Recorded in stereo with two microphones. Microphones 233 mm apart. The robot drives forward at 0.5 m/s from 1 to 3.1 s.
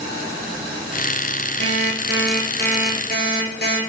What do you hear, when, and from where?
1.6 s an alarm clock: 50° left (ahead or behind), 4 m; by 3.8 s 45° left (ahead or behind), 4.5 m